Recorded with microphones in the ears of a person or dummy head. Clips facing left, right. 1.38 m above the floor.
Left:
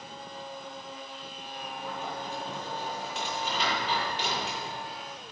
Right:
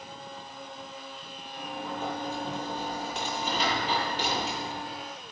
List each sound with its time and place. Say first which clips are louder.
1.6 s a sliding door: right 3 dB; 40° right (ahead or behind), 9 m